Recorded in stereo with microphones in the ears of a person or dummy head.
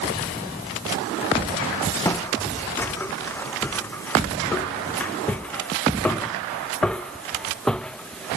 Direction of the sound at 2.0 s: 15° left (ahead or behind).